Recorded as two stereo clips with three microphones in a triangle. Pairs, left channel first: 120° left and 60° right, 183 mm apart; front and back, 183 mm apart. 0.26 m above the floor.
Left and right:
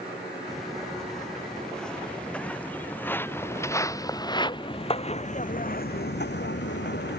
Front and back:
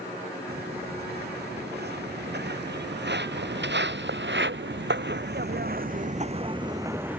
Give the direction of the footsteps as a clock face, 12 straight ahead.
5 o'clock.